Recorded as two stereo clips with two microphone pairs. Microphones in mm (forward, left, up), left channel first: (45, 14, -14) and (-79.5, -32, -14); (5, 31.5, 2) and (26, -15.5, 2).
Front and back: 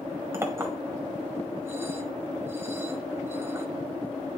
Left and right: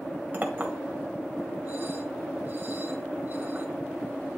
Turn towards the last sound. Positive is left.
turn(degrees=-100)